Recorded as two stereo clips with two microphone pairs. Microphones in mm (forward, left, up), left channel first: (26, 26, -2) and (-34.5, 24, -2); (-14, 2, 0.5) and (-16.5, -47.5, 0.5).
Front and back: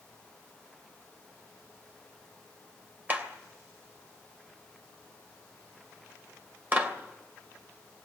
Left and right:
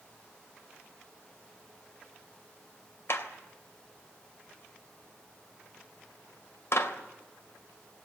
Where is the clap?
120° left, 3 m.